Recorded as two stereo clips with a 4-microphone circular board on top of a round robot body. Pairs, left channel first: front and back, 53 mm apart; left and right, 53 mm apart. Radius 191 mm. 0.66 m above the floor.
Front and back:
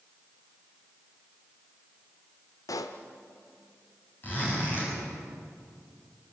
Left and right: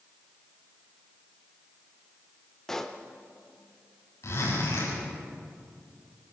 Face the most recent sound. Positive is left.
turn(degrees=55)